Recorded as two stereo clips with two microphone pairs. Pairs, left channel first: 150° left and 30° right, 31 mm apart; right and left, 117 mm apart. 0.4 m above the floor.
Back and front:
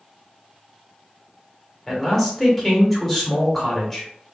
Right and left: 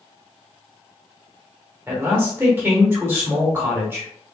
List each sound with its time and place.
1.9 s a man speaking: 80° left, 1.3 m